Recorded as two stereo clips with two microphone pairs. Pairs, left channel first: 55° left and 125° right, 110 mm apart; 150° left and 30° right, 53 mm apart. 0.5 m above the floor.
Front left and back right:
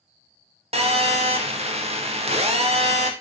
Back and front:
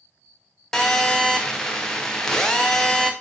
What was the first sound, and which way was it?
A phone buzzing, 135° right.